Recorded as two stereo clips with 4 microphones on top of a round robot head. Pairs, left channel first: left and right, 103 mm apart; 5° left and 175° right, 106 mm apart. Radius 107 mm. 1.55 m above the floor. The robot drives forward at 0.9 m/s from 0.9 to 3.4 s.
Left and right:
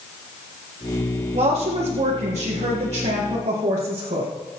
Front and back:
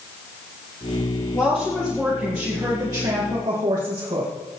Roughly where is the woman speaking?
Ahead right.